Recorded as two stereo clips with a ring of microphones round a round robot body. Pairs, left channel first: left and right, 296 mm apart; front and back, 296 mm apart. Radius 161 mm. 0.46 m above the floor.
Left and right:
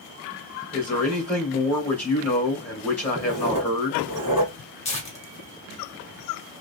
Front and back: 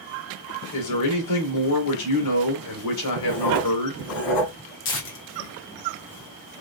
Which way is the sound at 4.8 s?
30° left.